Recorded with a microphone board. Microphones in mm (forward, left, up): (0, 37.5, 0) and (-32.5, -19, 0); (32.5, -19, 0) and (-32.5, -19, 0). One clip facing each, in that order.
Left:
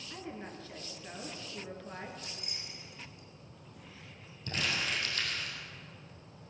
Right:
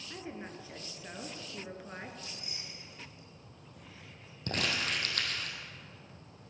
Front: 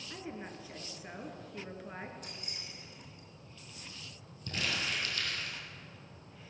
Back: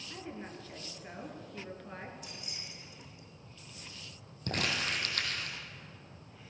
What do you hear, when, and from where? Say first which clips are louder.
0.1 s a woman speaking: even, even; 65° right, 1.8 m
2.2 s keys jangling: even, even; 35° left, 3 m
4.5 s crumpling: right 1 dB, back 2 dB; 150° right, 2.5 m